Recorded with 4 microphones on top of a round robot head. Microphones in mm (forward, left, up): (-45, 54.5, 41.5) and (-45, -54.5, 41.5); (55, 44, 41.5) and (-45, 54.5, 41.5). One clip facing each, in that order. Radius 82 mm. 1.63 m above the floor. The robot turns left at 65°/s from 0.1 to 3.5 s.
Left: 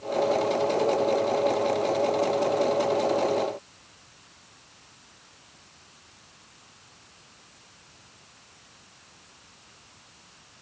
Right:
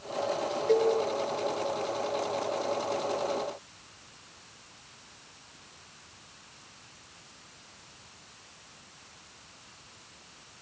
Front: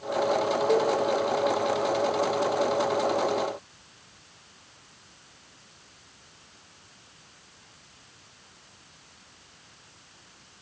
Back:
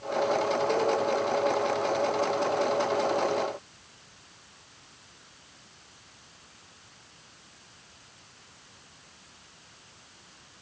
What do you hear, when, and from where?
0.7 s a cowbell: 70° right, 0.8 m; by 0.9 s 85° right, 0.8 m